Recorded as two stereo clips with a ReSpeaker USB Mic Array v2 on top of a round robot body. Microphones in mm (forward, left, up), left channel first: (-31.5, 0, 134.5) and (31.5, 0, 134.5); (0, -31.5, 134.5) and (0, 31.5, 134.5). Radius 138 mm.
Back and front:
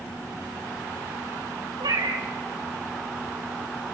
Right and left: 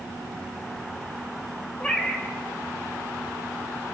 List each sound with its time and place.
1.8 s a cat meowing: 15° right, 2 m